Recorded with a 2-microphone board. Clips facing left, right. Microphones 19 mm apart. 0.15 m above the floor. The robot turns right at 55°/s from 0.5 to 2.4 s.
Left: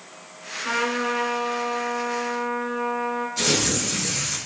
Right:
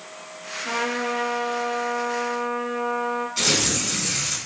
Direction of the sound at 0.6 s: 115° left.